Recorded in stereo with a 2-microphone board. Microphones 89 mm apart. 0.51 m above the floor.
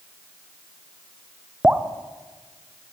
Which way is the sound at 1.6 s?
15° right (ahead or behind).